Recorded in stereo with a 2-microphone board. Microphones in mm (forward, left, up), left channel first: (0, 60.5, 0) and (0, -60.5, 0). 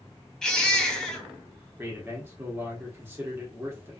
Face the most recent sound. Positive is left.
turn(degrees=-20)  # may be behind; listen again after turning